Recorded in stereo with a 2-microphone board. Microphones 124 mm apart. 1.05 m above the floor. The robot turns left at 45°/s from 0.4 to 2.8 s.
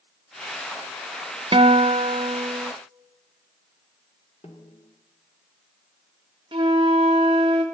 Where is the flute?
40° right (ahead or behind), 1.6 m.